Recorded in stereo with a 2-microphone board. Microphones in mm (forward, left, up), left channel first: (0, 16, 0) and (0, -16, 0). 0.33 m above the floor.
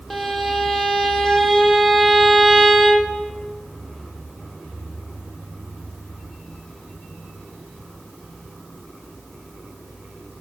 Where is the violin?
5° left (ahead or behind), 1.8 m.